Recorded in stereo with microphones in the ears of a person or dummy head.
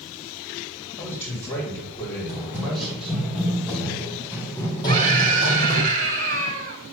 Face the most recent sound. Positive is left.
turn(degrees=-40)  # may be behind; listen again after turning